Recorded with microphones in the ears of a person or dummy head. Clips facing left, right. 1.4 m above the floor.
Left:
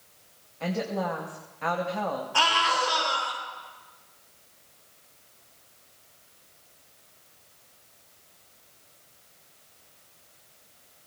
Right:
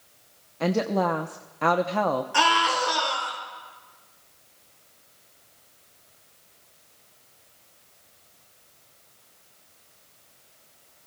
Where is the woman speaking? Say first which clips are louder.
Right 6 dB; 75° right (ahead or behind), 0.7 m.